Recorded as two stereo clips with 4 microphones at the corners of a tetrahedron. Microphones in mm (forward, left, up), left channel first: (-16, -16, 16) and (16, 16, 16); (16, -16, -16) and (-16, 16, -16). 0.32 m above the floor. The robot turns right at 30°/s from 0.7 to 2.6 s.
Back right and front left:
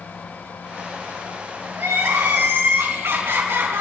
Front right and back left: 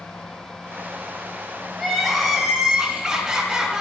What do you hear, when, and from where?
1.8 s crying: 35° left, 4 m; by 3.8 s 60° left, 4 m